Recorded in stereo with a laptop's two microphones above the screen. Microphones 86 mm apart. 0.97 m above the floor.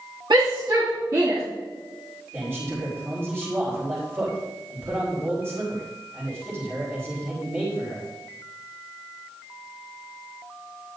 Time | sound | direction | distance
0.3 | a shout | 65° right (ahead or behind) | 2 m
2.3 | a man speaking | 30° right (ahead or behind) | 4 m